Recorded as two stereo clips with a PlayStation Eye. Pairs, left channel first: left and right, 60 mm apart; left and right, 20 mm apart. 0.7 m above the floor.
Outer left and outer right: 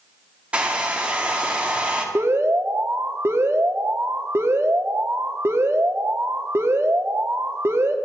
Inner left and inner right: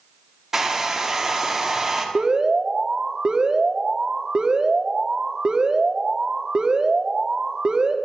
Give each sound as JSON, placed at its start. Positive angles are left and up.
{"t": 0.5, "sound": "a hair dryer", "side_deg": -20, "distance_m": 1.8}
{"t": 2.1, "sound": "an alarm", "side_deg": -45, "distance_m": 1.1}